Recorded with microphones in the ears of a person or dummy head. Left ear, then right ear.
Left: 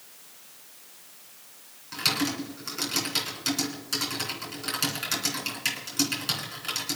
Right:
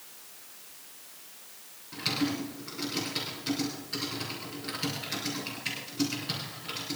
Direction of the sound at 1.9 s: 60° left (ahead or behind).